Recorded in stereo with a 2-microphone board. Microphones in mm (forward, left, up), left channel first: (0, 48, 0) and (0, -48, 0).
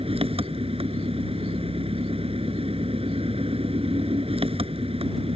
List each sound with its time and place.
0.0 s an engine running: 70° right (ahead or behind)